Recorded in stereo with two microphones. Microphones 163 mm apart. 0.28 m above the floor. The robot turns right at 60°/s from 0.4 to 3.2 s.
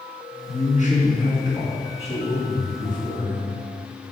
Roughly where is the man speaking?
Left.